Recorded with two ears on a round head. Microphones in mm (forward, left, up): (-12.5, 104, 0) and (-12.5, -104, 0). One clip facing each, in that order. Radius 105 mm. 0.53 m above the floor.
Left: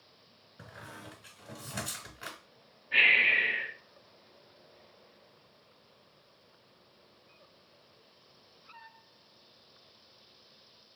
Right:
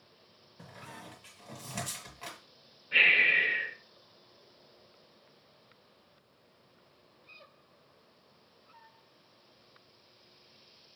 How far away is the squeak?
About 1.2 m.